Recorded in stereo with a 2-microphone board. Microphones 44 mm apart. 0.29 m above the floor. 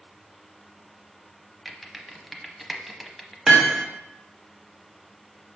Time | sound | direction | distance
1.6 | typing on a keyboard | centre (ahead or behind) | 0.7 m
3.5 | hammering | 15° right (ahead or behind) | 1.3 m